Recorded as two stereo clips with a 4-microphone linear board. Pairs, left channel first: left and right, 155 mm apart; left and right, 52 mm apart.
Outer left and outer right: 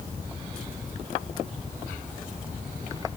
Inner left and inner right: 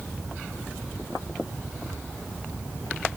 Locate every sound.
Only background noise.